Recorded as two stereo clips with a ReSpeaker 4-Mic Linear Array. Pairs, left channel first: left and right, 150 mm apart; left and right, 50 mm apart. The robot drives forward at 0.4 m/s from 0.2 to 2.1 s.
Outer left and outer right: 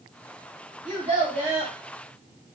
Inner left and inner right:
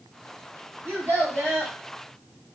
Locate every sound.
0.8 s a child speaking: 55° right (ahead or behind), 1.3 m; by 1.7 s 45° right (ahead or behind), 1.5 m